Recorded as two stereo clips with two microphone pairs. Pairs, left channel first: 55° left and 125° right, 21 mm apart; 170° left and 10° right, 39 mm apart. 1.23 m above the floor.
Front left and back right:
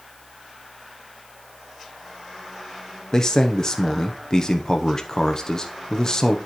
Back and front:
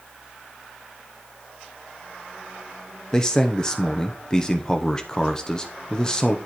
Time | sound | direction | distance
3.1 | a man speaking | 105° left | 0.8 m